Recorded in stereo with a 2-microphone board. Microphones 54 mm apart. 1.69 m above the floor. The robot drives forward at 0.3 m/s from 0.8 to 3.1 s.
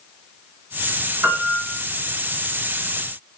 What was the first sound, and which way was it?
A piano, 30° right (ahead or behind).